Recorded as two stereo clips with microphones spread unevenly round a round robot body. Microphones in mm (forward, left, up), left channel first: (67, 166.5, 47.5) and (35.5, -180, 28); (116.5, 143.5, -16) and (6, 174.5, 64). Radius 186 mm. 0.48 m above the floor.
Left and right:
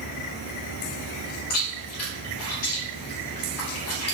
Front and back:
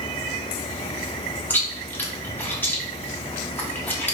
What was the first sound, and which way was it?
Chewing, 40° left.